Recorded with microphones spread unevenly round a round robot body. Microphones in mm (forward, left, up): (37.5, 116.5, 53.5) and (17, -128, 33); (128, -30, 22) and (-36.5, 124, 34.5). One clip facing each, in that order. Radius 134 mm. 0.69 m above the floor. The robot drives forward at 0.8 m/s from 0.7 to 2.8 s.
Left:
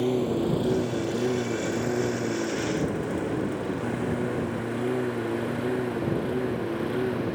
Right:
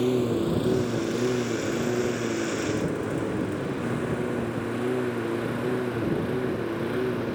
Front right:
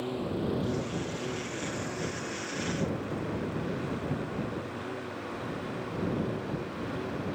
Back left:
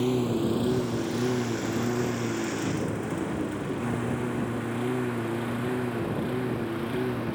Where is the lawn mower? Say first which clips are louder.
Right 1 dB, back left 7 dB; 175° right; by 7.4 s straight behind.